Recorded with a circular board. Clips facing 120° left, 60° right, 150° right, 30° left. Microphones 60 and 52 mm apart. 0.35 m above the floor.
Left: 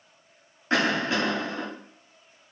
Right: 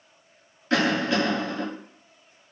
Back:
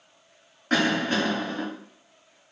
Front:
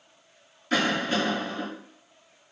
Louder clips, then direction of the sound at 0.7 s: Right 2 dB, back 2 dB; straight behind.